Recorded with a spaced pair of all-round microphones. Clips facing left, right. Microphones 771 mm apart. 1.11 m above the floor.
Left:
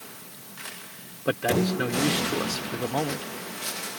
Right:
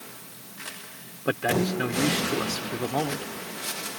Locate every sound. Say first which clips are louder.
1.2 s a man speaking: left 1 dB; centre (ahead or behind)